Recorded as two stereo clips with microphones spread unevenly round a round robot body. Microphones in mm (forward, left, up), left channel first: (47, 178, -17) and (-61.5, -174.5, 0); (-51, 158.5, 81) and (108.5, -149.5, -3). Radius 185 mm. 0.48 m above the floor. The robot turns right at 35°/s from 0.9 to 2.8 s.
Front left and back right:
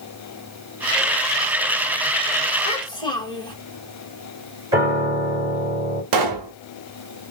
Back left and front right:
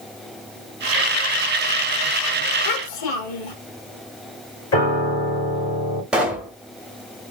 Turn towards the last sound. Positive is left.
turn(degrees=-150)